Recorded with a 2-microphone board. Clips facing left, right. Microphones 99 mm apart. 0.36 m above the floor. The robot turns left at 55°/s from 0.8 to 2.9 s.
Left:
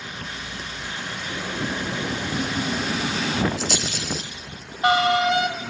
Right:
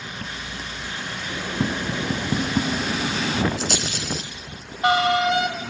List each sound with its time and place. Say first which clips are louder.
1.6 s tapping: right 3 dB; 70° right (ahead or behind), 3 m; by 2.8 s 35° right (ahead or behind), 3 m
3.6 s a rattle: even; 45° right (ahead or behind), 5 m